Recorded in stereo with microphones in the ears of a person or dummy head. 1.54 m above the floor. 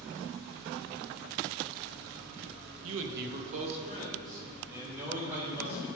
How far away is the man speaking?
About 0.8 m.